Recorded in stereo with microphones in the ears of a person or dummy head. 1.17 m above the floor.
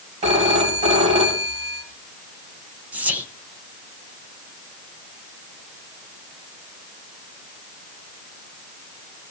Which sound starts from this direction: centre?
Whispering, at 2.9 s.